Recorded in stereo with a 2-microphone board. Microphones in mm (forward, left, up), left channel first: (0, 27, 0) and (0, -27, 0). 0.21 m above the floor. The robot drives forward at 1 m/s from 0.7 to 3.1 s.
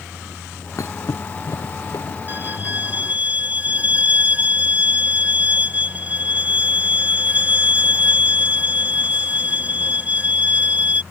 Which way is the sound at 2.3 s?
35° right (ahead or behind).